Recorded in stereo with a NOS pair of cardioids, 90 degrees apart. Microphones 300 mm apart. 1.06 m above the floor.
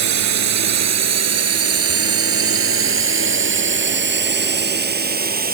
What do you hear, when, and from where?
0.0 s a drone: 65° right; by 5.5 s 30° right